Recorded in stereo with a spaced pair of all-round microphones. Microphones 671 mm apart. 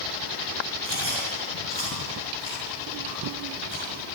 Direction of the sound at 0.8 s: 40° right (ahead or behind).